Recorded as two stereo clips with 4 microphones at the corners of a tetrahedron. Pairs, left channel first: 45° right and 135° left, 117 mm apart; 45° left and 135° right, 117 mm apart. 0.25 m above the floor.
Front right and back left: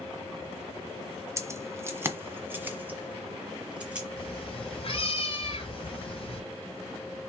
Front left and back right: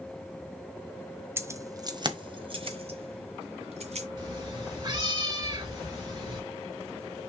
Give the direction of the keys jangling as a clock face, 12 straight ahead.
6 o'clock.